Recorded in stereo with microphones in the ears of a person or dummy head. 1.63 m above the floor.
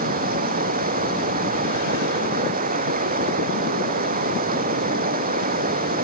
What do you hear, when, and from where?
0.0 s running water: 40° right (ahead or behind)